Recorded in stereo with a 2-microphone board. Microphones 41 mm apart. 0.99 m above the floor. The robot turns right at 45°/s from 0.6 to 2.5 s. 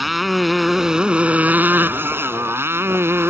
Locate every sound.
0.0 s a motorcycle: 175° right; by 3.3 s 90° right